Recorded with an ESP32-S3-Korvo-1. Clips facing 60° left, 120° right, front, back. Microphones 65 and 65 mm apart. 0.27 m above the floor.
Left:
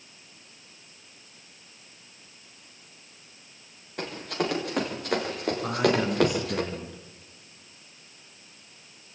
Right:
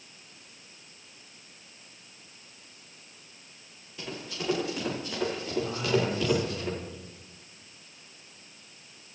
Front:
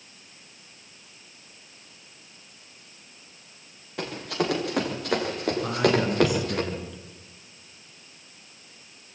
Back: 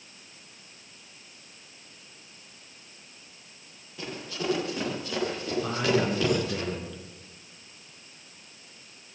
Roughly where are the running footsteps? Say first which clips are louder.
Left 7 dB, front 6 dB; ahead left.